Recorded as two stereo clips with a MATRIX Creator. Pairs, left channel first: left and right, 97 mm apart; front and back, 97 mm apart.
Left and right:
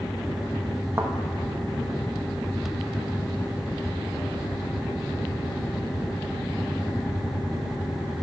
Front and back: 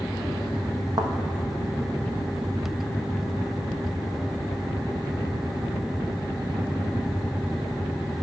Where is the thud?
145° right, 1.2 m.